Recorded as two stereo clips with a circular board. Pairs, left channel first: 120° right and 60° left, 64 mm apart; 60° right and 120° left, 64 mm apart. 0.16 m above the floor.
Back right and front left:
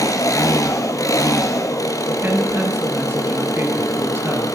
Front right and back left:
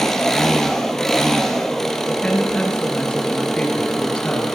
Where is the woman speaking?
10° left, 3.5 m.